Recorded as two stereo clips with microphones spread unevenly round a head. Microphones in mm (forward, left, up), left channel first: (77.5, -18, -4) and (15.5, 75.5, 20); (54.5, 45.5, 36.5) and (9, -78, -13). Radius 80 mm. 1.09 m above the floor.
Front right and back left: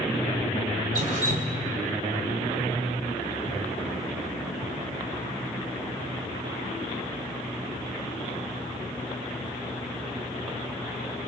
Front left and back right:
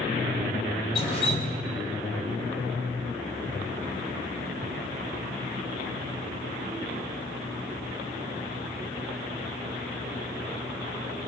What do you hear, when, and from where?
0.9 s dripping: 130° left, 2.5 m